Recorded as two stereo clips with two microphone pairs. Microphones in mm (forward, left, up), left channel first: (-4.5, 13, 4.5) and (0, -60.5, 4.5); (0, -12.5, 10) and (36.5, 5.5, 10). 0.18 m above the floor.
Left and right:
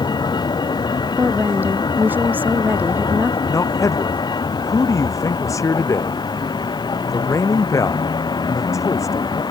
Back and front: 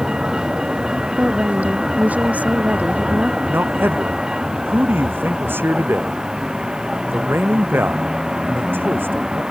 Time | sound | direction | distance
0.0 | a vehicle | 100° left | ?
1.2 | a woman speaking | 25° right | ?
3.5 | a man speaking | 50° left | ?